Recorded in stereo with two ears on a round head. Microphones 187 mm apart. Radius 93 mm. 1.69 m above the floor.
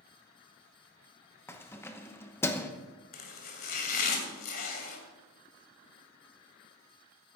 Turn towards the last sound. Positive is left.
turn(degrees=45)  # may be behind; listen again after turning